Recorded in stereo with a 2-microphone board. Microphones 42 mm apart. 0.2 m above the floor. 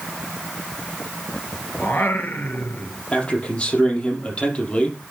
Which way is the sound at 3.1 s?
30° left (ahead or behind).